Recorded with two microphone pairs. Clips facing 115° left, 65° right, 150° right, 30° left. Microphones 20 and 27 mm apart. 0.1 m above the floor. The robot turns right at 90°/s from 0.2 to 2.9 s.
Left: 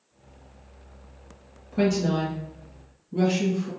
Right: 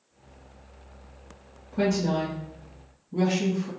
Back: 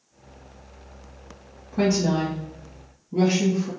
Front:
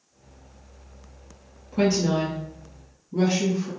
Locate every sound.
1.7 s a woman speaking: 70° left, 1.5 m; by 3.7 s 175° left, 1.5 m